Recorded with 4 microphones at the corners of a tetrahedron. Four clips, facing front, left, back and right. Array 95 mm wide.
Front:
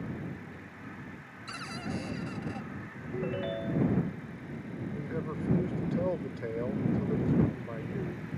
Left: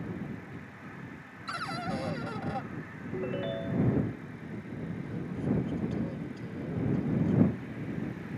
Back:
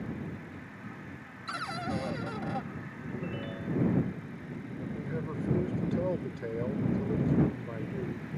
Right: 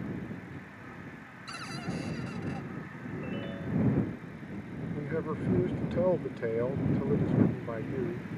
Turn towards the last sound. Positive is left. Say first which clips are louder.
# right 8 dB, even
turn(degrees=-85)